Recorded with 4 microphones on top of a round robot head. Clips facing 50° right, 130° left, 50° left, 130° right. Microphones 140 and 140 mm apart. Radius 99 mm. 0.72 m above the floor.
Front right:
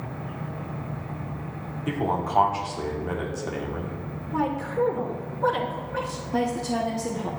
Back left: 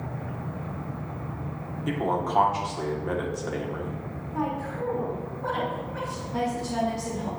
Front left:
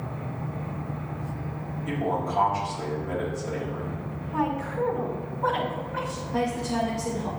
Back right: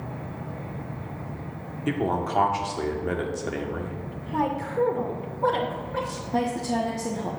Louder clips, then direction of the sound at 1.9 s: Even, back right 2 dB; 135° right.